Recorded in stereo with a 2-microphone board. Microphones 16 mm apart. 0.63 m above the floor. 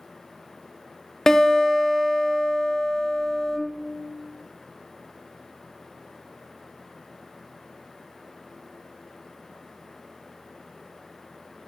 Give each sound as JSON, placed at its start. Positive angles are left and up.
{"t": 1.3, "sound": "a guitar", "side_deg": 30, "distance_m": 0.5}